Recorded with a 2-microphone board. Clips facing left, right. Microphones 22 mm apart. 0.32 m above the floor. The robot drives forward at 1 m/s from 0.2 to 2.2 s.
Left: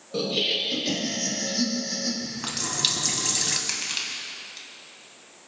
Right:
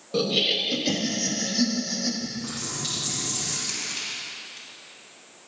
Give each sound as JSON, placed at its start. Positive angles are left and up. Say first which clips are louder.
{"t": 0.1, "sound": "laughter", "louder": "right 2 dB", "side_deg": -20, "distance_m": 1.9}
{"t": 2.2, "sound": "a running tap", "louder": "left 1 dB", "side_deg": 60, "distance_m": 1.7}
{"t": 3.7, "sound": "crushing", "louder": "left 2 dB", "side_deg": 30, "distance_m": 2.5}